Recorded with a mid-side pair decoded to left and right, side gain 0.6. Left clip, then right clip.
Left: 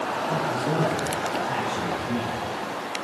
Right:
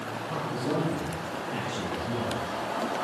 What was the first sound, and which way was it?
A man speaking, 25° left.